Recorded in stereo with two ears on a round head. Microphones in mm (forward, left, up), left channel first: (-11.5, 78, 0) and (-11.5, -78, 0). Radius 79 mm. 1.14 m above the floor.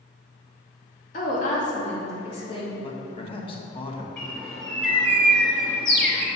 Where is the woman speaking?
45° left (ahead or behind), 1.9 m; by 2.7 s 30° left (ahead or behind), 2.5 m.